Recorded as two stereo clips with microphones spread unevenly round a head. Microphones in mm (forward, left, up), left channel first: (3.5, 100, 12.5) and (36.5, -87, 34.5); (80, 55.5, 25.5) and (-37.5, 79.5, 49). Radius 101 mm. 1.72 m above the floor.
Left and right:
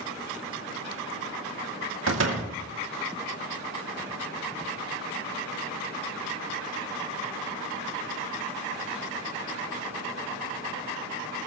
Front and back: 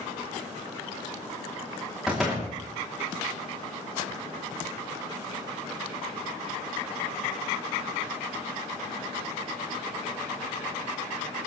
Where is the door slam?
105° right, 3 m.